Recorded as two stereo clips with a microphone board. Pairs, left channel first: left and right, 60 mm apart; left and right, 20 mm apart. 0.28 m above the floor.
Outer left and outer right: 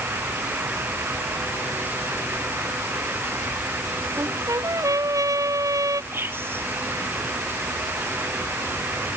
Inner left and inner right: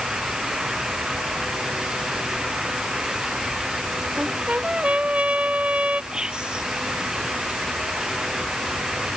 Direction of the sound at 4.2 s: 85° right.